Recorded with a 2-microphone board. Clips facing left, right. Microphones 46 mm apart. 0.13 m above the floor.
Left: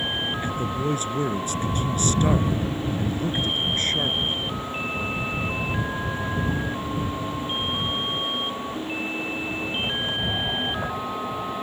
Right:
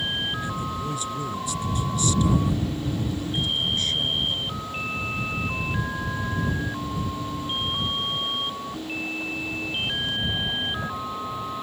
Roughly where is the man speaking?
Left.